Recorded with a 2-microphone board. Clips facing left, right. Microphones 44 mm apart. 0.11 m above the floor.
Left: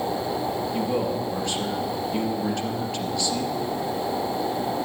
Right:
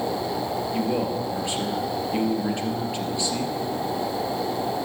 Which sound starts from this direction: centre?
A man speaking, at 0.7 s.